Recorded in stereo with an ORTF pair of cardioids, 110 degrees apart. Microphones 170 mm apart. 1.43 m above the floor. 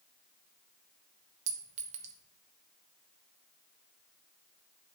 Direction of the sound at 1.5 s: 45° right.